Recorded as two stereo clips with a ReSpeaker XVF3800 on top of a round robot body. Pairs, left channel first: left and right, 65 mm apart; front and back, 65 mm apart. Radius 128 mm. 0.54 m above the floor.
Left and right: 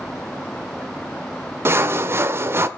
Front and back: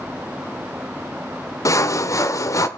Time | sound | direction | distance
1.6 | sawing | 40° right | 1.1 m